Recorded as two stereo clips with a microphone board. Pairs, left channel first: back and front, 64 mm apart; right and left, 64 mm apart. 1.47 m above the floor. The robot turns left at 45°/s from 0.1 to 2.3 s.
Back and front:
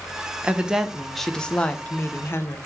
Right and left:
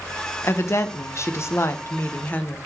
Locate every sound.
0.4 s a woman speaking: 65° right, 0.5 m; by 2.6 s 145° right, 0.5 m